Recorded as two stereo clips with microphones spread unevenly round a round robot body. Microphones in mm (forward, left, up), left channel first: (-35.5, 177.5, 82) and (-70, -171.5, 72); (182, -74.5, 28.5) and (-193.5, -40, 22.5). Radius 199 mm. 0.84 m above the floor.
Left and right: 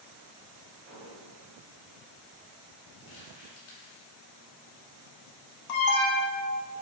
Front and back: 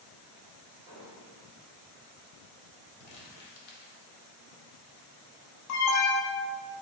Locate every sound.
0.9 s an explosion: 75° right, 1.8 m
3.0 s crumpling: 35° left, 0.6 m
5.7 s an alarm: 45° left, 0.5 m